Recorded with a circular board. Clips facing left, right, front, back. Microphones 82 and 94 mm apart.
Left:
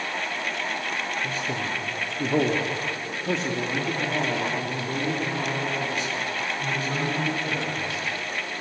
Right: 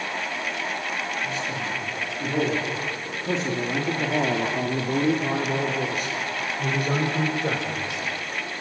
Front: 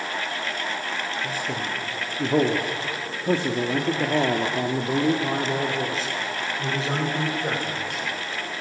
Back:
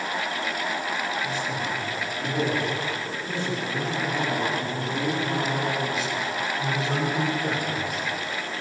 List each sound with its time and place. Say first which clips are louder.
1.2 s a man speaking: even, even; 45° left, 3 m; by 8.0 s 70° right, 5 m